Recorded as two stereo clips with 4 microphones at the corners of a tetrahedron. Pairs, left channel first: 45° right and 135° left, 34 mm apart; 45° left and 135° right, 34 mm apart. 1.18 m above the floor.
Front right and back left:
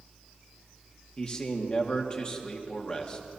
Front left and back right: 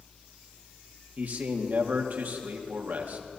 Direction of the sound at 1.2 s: 110° right.